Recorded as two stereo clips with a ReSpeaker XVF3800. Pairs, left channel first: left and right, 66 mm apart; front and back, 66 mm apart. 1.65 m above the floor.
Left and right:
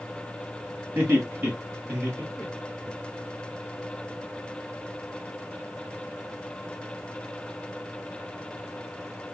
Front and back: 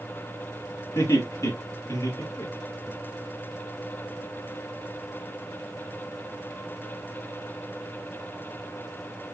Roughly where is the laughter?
Ahead right.